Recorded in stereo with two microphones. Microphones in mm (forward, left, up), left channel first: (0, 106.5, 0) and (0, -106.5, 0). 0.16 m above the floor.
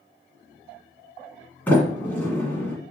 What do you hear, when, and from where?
1.7 s a sliding door: 10° left (ahead or behind), 1.7 m